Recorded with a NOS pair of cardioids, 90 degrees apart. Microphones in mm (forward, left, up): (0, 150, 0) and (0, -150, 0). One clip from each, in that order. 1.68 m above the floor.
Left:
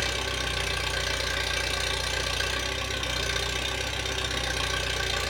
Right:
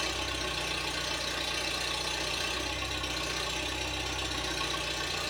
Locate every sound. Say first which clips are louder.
0.0 s an engine running: left 4 dB; 70° left, 1.6 m